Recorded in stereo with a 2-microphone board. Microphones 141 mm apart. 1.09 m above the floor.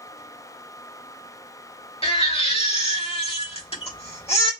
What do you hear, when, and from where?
2.0 s a baby crying: 40° left (ahead or behind), 1.8 m